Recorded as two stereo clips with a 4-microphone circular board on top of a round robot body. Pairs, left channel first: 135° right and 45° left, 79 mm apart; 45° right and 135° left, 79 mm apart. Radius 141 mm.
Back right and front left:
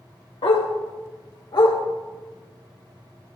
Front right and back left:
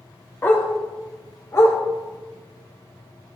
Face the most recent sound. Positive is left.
turn(degrees=-100)